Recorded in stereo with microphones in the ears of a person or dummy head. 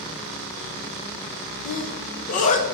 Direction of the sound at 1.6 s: 40° left (ahead or behind).